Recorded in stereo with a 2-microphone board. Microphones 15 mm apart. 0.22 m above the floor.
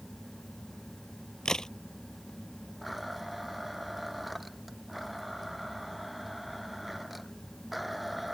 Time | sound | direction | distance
1.4 | a crack | 45° left (ahead or behind) | ?
2.8 | a blender | 10° right (ahead or behind) | ?